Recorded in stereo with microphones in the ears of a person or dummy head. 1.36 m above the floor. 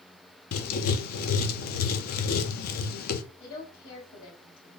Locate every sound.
0.5 s writing: 60° left (ahead or behind), 0.6 m
3.4 s a woman speaking: 55° left (ahead or behind), 2.5 m